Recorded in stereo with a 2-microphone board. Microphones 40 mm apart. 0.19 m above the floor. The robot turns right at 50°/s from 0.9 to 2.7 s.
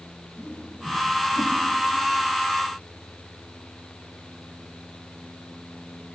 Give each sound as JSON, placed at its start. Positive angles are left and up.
{"t": 0.4, "sound": "a whoosh", "side_deg": 30, "distance_m": 5.5}